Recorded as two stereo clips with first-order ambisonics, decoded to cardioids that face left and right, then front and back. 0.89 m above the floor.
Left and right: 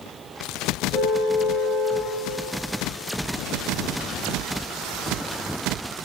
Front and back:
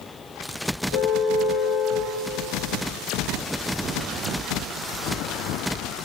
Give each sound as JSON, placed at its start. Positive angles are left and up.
{"t": 0.9, "sound": "a car horn", "azimuth_deg": -5, "distance_m": 7.5}